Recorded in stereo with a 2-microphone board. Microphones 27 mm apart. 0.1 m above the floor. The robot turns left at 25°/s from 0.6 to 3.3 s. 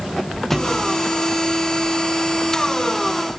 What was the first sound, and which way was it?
A thud, 10° left (ahead or behind).